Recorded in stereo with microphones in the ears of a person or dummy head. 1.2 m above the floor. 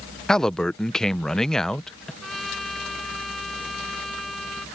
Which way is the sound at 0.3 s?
5° left (ahead or behind).